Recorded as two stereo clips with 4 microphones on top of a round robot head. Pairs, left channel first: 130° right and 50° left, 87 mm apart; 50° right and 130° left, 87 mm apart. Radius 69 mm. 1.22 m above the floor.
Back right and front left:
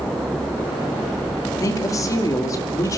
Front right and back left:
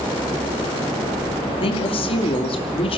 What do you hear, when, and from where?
1.6 s a woman speaking: 75° right, 2.5 m